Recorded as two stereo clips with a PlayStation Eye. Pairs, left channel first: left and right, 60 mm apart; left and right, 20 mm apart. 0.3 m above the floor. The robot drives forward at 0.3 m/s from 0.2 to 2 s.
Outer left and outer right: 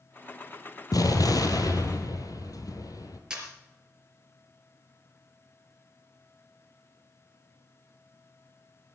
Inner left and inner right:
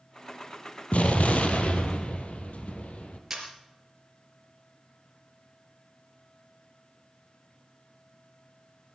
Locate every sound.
0.9 s an explosion: 90° left, 1.6 m; by 3.2 s 80° left, 1.7 m
3.3 s a camera shutter: 15° right (ahead or behind), 3.5 m